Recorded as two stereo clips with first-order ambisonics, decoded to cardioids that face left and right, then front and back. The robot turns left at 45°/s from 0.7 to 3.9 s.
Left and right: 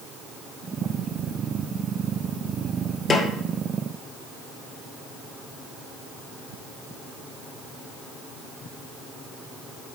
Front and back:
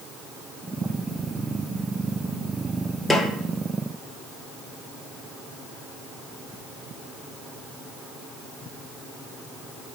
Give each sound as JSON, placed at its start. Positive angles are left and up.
{"t": 3.1, "sound": "a snare drum", "azimuth_deg": 70, "distance_m": 0.9}